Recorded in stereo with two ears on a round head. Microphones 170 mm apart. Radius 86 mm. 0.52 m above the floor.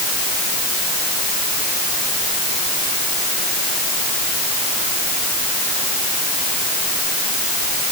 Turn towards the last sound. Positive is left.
No sound to turn to.